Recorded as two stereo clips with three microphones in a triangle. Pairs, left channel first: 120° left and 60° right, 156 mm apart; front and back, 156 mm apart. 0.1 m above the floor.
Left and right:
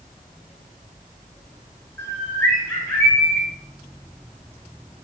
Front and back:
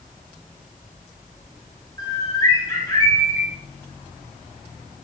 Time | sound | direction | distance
2.0 | a bird | 55° left | 1.7 m